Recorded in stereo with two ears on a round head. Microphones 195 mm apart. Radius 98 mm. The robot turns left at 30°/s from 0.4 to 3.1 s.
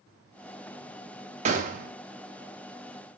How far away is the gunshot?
About 0.5 m.